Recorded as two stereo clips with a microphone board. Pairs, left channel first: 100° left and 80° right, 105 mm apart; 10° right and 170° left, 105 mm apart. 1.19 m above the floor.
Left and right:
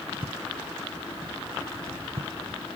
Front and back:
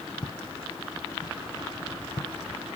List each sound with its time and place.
0.2 s footsteps: 55° right; by 2.3 s 60° right